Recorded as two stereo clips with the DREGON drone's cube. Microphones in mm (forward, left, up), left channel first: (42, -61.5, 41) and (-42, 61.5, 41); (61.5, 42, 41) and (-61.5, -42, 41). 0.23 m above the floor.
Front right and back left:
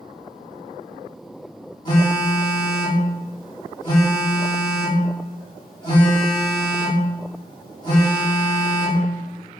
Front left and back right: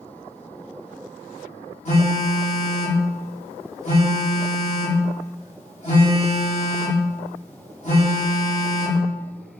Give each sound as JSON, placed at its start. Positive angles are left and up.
{"t": 1.9, "sound": "a phone buzzing", "azimuth_deg": 0, "distance_m": 1.3}